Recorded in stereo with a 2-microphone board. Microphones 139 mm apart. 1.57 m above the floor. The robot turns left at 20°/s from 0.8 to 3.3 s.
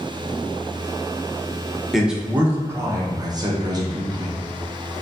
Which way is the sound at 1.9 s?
Centre (ahead or behind).